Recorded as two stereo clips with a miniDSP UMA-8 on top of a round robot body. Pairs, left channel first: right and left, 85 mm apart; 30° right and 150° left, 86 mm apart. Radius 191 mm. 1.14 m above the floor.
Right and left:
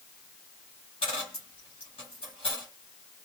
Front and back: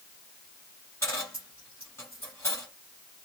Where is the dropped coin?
85° right, 1.1 m.